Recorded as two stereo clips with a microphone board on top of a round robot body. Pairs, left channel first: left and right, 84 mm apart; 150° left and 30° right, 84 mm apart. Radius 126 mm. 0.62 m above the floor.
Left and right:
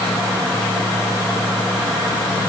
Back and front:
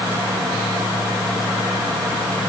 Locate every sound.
Only background noise.